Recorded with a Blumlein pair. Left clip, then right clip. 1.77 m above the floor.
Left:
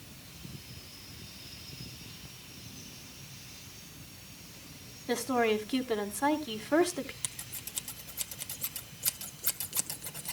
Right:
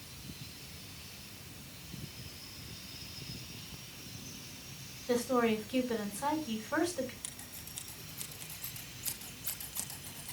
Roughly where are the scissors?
Ahead left.